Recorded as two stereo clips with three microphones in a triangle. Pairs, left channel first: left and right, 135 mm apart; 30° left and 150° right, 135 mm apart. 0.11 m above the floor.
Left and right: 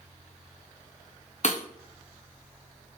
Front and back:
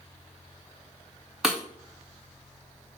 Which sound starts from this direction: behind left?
Breaking glass, at 1.4 s.